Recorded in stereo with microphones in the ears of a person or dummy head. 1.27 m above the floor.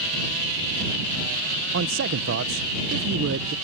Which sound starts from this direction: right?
A man speaking, at 1.7 s.